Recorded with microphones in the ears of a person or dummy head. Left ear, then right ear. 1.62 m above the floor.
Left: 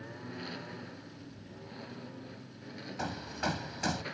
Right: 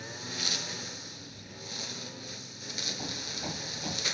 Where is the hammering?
70° left (ahead or behind).